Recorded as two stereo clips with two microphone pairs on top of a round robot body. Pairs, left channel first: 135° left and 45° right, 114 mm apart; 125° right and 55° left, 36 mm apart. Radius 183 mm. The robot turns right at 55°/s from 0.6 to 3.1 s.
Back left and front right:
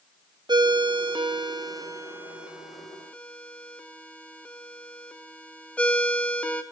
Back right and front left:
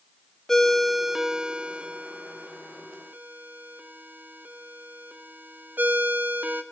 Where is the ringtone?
70° right, 0.7 m; by 6.6 s 70° left, 0.7 m.